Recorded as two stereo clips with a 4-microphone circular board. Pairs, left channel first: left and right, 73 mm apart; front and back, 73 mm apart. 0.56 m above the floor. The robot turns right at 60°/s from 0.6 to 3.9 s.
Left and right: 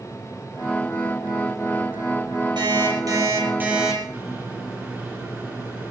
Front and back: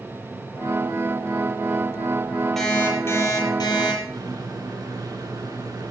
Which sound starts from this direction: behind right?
A microwave, at 4.1 s.